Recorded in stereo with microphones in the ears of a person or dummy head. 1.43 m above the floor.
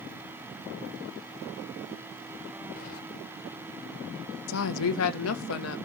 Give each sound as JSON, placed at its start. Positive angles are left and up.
{"t": 2.8, "sound": "keys jangling", "side_deg": 50, "distance_m": 4.0}
{"t": 4.5, "sound": "a woman speaking", "side_deg": 85, "distance_m": 1.2}